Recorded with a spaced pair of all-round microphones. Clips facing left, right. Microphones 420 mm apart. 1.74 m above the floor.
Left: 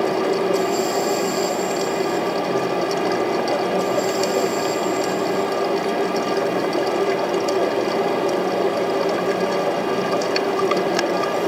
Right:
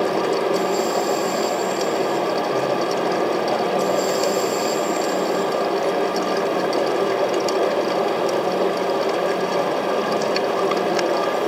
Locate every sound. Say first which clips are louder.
0.0 s a fan: left 1 dB; 40° left (ahead or behind), 2 m